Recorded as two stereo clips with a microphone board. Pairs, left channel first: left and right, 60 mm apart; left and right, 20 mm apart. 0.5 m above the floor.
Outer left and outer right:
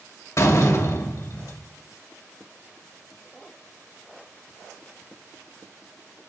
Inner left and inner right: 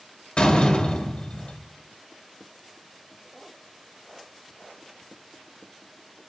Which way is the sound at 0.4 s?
55° left (ahead or behind).